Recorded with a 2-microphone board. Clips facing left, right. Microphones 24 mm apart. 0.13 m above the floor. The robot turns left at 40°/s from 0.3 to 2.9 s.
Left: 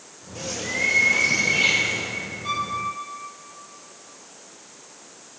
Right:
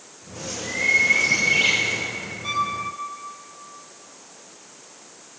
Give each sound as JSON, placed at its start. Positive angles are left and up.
{"t": 0.3, "sound": "a bird", "azimuth_deg": 20, "distance_m": 1.2}
{"t": 2.4, "sound": "a violin", "side_deg": -50, "distance_m": 1.1}